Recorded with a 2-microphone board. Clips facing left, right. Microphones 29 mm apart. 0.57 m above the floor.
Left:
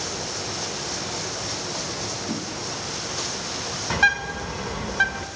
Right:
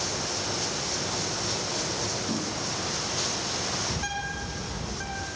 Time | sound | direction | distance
2.3 | a whoosh | 10° left (ahead or behind) | 4 m
3.9 | a bird | 65° left (ahead or behind) | 0.9 m